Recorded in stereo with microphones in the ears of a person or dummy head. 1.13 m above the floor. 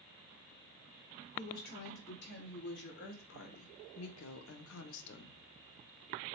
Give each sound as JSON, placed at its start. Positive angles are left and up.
{"t": 1.4, "sound": "a woman speaking", "side_deg": 50, "distance_m": 2.0}